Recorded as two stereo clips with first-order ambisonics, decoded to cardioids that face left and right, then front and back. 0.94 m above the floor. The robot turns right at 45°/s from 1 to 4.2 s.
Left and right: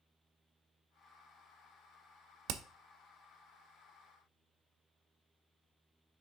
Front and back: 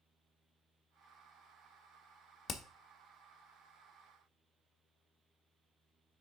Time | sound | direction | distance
2.5 | hammering | 65° right | 0.6 m